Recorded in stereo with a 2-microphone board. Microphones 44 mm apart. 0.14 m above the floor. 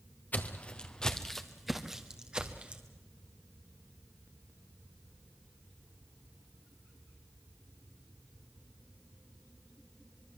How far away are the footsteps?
About 1.4 m.